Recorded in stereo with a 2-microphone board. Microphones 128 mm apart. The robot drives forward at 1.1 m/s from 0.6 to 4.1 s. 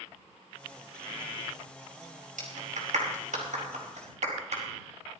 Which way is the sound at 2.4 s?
85° right.